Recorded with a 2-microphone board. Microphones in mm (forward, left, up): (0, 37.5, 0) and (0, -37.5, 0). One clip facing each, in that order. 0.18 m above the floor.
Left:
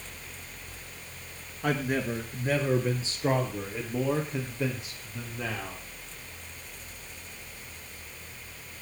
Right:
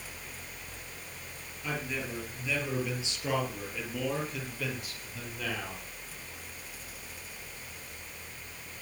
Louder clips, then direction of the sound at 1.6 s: Left 8 dB; 60° left (ahead or behind).